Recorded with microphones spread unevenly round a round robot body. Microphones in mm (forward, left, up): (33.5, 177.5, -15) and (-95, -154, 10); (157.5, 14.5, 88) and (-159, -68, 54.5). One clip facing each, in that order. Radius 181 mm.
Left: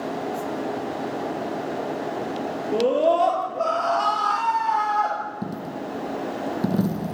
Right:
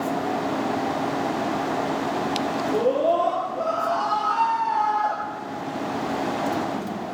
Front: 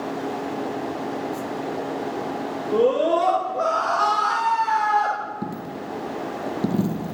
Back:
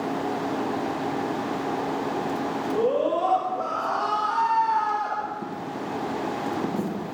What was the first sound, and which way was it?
A scream, 30° left.